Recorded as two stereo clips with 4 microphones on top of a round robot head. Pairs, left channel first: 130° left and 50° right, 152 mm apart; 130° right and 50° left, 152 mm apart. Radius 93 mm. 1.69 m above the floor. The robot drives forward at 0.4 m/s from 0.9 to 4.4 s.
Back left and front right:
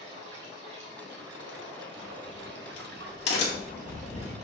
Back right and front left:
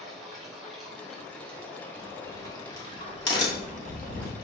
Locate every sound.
0.0 s running water: 40° right, 1.7 m; by 4.4 s 100° right, 1.2 m
2.0 s a crack: 160° left, 1.2 m; by 4.3 s 170° left, 1.9 m